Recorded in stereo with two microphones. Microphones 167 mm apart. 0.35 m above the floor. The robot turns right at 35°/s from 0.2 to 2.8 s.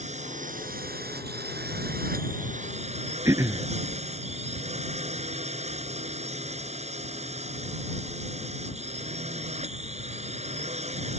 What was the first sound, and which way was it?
A drone, 135° right.